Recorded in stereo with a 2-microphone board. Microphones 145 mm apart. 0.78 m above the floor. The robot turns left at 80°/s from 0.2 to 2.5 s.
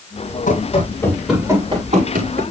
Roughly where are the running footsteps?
Left.